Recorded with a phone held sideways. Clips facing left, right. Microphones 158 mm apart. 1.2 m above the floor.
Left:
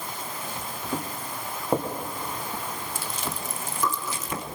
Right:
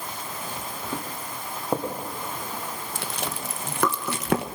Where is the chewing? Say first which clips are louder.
Right 1 dB; 70° right (ahead or behind), 1.3 m.